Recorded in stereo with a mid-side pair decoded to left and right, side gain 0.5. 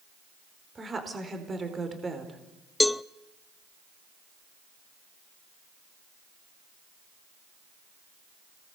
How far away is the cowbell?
About 0.5 m.